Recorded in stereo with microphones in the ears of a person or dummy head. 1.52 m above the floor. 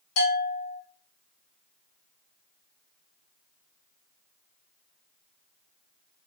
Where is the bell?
70° left (ahead or behind), 1.8 m.